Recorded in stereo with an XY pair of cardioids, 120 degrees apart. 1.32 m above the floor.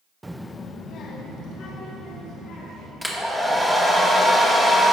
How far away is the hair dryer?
About 1.7 m.